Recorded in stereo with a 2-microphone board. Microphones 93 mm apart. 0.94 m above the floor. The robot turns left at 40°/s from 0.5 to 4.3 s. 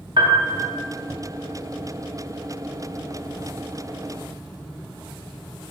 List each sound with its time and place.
0.2 s a piano: 60° right (ahead or behind), 1.0 m; by 0.6 s 55° right (ahead or behind), 1.0 m